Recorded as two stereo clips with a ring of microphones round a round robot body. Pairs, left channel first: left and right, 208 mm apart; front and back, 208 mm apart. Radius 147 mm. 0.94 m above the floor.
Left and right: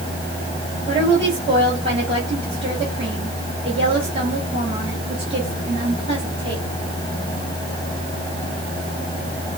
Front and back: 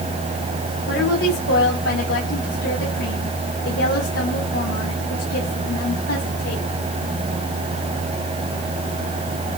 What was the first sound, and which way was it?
A woman speaking, 30° right.